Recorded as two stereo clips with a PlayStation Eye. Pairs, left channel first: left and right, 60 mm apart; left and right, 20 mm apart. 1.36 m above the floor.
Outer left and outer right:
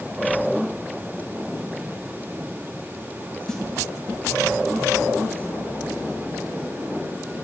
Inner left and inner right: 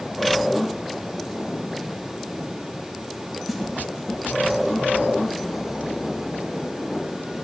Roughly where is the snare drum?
Centre.